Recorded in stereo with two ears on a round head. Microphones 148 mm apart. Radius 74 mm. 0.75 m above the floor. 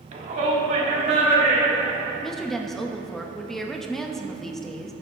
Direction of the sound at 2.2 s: 5° left (ahead or behind).